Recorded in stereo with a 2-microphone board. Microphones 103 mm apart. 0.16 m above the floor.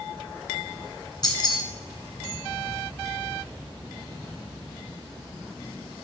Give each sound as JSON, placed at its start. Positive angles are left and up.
{"t": 1.2, "sound": "keys jangling", "side_deg": 45, "distance_m": 1.1}